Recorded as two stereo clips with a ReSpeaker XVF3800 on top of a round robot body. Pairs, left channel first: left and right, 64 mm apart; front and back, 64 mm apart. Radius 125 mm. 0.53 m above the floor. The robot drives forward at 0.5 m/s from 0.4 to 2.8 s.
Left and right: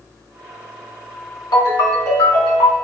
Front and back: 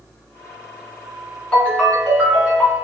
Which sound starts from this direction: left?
A ringtone, at 1.5 s.